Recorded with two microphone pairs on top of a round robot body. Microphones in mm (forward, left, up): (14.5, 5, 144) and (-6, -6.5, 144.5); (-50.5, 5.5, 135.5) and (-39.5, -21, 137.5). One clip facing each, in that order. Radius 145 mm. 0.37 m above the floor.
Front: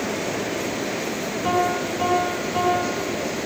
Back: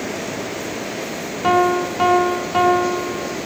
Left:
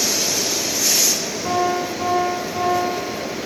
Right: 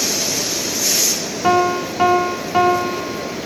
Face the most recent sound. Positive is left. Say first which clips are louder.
# back 6 dB, right 5 dB
turn(degrees=-90)